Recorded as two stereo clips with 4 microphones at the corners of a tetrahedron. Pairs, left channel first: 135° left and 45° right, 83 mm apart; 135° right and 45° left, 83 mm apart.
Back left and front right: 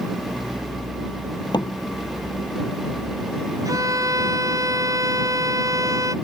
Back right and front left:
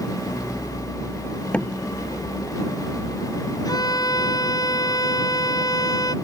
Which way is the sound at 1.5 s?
150° left.